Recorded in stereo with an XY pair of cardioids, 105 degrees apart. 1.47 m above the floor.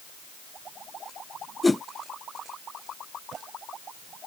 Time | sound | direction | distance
1.6 | a whoosh | 15° left | ?